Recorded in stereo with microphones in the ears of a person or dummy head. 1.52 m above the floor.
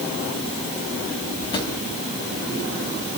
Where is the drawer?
25° left (ahead or behind), 3 m.